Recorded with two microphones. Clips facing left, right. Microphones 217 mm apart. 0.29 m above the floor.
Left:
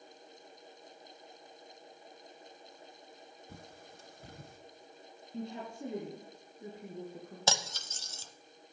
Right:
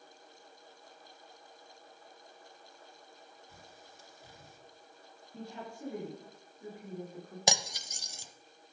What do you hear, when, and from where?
3.5 s a bird: 55° left (ahead or behind), 1.5 m
5.3 s a woman speaking: 25° left (ahead or behind), 4.5 m
7.5 s cutlery clinking: 15° right (ahead or behind), 0.7 m